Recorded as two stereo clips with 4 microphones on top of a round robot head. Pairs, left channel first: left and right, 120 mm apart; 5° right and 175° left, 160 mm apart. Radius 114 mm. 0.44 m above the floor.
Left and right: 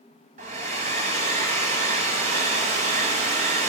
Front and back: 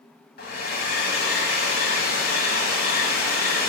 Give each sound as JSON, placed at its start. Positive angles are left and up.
{"t": 0.4, "sound": "a hair dryer", "azimuth_deg": -45, "distance_m": 0.7}